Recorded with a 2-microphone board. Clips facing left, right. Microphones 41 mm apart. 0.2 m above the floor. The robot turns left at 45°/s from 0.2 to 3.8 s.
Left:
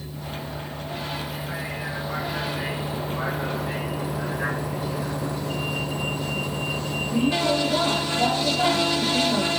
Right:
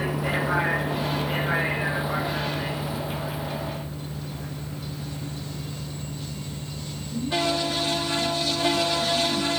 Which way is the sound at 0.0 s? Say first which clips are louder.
Right 9 dB; 85° right.